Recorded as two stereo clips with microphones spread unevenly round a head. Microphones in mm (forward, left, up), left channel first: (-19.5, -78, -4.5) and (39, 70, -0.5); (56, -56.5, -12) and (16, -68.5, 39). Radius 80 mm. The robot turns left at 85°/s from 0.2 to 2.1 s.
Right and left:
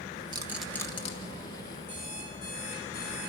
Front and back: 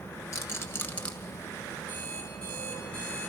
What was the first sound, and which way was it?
A rattle, 5° left.